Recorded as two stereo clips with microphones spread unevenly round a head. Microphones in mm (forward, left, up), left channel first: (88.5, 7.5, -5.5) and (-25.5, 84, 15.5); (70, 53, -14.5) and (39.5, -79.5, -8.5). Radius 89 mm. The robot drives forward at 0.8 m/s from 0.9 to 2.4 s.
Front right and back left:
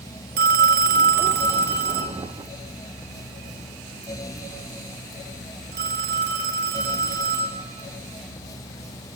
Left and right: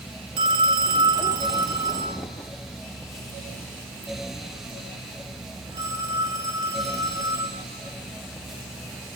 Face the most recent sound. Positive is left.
turn(degrees=-175)